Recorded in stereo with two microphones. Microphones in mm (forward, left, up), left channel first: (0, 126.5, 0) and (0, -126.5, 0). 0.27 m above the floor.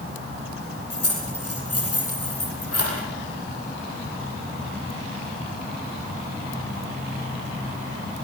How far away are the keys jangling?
About 7 m.